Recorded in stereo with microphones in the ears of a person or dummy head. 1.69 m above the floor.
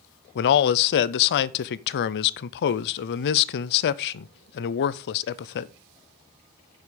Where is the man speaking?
65° left (ahead or behind), 0.6 m.